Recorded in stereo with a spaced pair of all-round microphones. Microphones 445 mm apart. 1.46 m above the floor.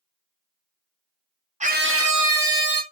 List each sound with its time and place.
1.6 s a scream: 15° right (ahead or behind), 0.9 m; by 2.8 s 70° right (ahead or behind), 0.9 m